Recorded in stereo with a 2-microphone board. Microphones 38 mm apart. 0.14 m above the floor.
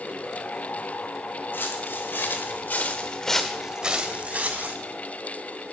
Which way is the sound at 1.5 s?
85° left.